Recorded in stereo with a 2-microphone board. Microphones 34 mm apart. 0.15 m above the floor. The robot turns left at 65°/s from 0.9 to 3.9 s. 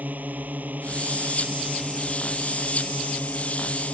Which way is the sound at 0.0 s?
110° right.